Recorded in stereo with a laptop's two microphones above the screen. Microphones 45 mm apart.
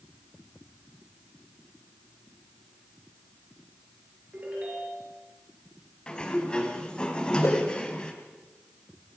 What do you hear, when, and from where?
4.3 s a ringtone: 30° right (ahead or behind), 6.5 m
6.1 s a sliding door: 20° left (ahead or behind), 4.5 m
7.4 s a whoosh: 75° left (ahead or behind), 5 m